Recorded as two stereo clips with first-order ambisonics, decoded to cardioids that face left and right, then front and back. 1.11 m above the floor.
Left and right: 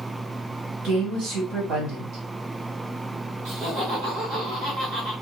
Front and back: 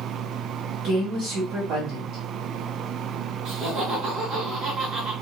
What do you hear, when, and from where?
0.8 s a woman speaking: 135° right, 1.7 m
3.5 s laughter: 125° right, 1.7 m